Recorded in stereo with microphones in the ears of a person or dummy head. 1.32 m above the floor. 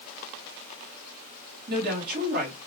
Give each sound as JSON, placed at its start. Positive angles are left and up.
{"t": 1.7, "sound": "a woman speaking", "side_deg": -50, "distance_m": 1.4}